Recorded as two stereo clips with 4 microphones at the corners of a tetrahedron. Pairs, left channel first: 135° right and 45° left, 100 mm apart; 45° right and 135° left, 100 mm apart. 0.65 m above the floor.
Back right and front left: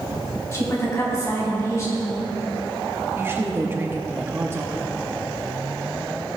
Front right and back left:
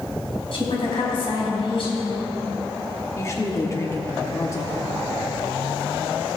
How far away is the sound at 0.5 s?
About 3.5 m.